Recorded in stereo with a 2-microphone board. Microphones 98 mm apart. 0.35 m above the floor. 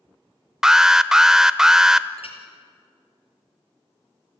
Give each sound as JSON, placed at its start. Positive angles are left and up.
{"t": 0.6, "sound": "an alarm", "side_deg": -5, "distance_m": 0.6}
{"t": 2.2, "sound": "a clink", "side_deg": 70, "distance_m": 4.0}